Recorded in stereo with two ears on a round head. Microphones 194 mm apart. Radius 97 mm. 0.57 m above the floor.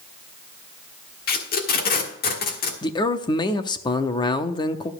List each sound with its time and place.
1.3 s tape being pulled: 45° left (ahead or behind), 1.4 m
2.8 s a man speaking: 20° left (ahead or behind), 0.6 m